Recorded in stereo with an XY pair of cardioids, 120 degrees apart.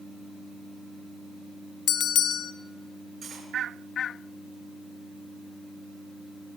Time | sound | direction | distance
1.9 | a bell | 60° left | 0.5 m
3.2 | cutlery clinking | 40° right | 7.5 m